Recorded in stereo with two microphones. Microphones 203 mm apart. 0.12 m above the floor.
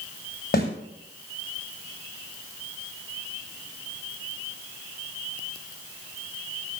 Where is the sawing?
No sawing in this recording.